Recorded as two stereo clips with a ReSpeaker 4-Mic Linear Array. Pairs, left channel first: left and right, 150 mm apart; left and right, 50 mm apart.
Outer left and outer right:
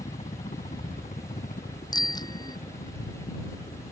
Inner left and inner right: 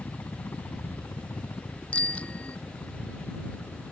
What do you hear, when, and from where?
0.0 s a helicopter: 45° left (ahead or behind); by 3.9 s 70° left (ahead or behind)
1.9 s a bicycle bell: 25° left (ahead or behind)